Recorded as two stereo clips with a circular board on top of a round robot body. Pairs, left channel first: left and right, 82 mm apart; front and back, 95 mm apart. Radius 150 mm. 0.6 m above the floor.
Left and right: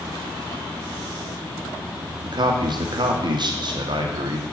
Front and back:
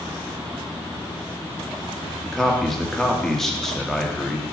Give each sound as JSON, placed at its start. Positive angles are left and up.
{"t": 2.2, "sound": "a man speaking", "azimuth_deg": -85, "distance_m": 1.7}